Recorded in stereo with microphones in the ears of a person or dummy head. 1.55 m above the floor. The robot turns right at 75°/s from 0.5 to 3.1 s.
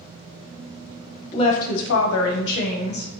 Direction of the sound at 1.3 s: 30° left.